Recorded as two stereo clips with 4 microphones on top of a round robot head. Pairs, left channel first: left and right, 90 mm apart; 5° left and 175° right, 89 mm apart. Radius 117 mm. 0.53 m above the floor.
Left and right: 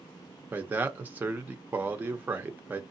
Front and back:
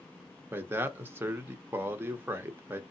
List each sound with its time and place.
0.5 s a man speaking: 140° right, 0.9 m